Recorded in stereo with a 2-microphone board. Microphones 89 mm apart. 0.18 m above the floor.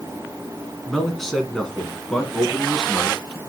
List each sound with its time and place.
0.9 s a man speaking: 5° left (ahead or behind), 2.5 m; by 3.4 s 10° left (ahead or behind), 1.6 m